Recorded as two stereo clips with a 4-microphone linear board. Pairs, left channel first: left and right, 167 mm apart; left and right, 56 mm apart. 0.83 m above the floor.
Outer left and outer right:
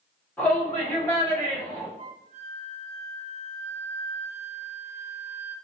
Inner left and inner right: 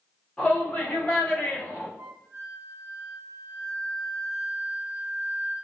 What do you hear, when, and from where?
0.4 s a shout: 10° left (ahead or behind), 1.8 m; by 1.9 s 25° left (ahead or behind), 2.5 m
2.0 s a flute: 40° right (ahead or behind), 1.1 m